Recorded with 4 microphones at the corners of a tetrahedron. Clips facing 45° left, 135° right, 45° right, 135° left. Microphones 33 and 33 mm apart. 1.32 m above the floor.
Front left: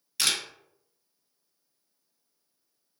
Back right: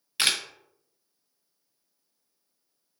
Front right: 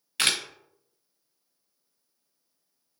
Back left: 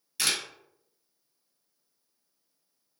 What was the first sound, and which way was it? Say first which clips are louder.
A camera shutter: back right 2 dB, front right 4 dB; 80° right.